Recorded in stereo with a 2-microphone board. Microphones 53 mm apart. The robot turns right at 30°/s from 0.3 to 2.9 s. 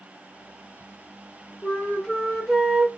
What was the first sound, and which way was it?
A flute, 150° left.